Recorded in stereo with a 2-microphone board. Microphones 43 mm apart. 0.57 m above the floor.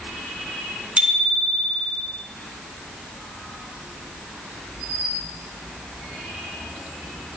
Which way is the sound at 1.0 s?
25° right (ahead or behind).